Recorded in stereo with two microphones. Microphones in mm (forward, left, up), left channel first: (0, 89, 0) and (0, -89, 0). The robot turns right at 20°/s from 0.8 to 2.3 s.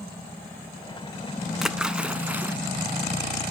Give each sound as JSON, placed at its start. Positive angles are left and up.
{"t": 1.6, "sound": "a splash", "side_deg": 0, "distance_m": 0.6}